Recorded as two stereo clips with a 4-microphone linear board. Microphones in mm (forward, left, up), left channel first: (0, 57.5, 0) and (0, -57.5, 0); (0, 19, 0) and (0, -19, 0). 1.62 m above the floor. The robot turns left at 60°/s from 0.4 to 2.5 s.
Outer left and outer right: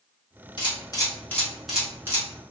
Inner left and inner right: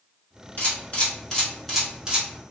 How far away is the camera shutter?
About 1.2 m.